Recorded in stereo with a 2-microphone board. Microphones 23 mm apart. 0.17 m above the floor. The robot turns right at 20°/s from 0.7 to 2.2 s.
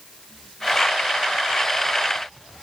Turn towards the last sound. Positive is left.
No sound to turn to.